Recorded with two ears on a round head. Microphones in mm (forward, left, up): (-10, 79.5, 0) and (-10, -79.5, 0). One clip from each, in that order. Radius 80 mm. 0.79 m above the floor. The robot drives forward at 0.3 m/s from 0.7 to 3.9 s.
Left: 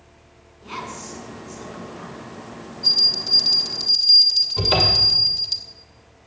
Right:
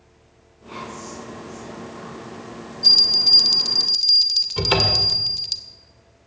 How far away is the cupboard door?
About 2 m.